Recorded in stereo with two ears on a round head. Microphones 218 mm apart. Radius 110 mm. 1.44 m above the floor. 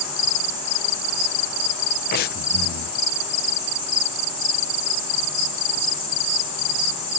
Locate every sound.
2.1 s breathing: 40° left (ahead or behind)